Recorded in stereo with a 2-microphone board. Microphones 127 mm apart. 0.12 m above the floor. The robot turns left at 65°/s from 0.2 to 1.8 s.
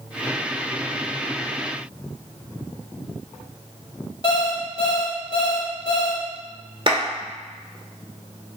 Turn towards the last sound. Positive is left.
turn(degrees=-45)  # may be behind; listen again after turning